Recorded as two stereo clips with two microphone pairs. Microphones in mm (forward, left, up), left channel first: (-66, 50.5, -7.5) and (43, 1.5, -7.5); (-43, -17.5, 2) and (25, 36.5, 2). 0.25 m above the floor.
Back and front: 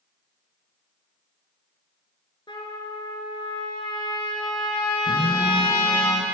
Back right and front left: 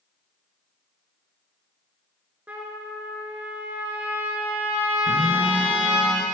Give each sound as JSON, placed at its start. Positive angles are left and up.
{"t": 2.5, "sound": "a trumpet", "azimuth_deg": 110, "distance_m": 2.5}
{"t": 5.1, "sound": "a phone buzzing", "azimuth_deg": -60, "distance_m": 3.5}